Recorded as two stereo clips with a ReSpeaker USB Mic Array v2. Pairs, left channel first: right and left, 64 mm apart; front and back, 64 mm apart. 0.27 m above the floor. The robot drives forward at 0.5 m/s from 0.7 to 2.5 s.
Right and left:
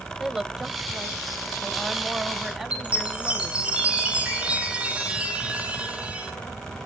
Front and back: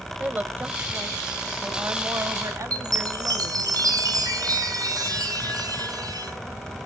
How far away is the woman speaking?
About 1.0 m.